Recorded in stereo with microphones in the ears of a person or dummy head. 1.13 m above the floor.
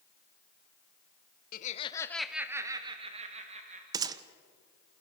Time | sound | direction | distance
1.5 | laughter | 45° left (ahead or behind) | 0.8 m
3.9 | a gunshot | 15° right (ahead or behind) | 0.8 m